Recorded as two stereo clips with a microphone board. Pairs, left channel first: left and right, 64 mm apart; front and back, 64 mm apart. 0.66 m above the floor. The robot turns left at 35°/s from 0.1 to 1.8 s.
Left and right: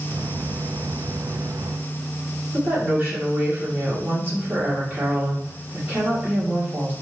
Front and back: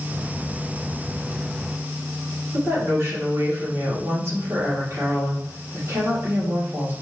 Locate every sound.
2.5 s a woman speaking: 145° right, 1.9 m